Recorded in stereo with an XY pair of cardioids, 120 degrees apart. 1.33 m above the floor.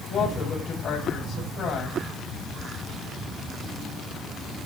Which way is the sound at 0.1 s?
50° left.